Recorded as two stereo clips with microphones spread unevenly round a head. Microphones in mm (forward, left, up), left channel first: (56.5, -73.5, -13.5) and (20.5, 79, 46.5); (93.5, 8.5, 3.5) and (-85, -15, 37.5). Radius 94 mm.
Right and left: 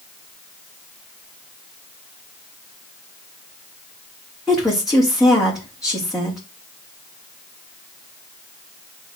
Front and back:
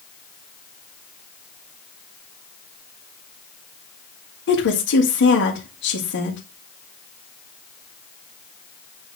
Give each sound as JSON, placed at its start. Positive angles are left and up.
{"t": 4.5, "sound": "a woman speaking", "azimuth_deg": 10, "distance_m": 2.5}